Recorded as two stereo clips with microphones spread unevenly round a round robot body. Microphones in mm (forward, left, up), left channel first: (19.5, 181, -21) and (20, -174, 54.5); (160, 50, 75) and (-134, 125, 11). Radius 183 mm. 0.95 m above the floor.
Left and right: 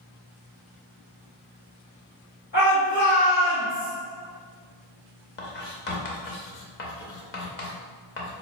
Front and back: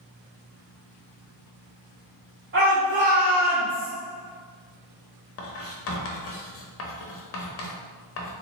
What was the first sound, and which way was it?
A shout, 140° left.